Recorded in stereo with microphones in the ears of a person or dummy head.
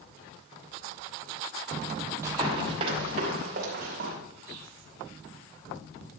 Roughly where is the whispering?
Right.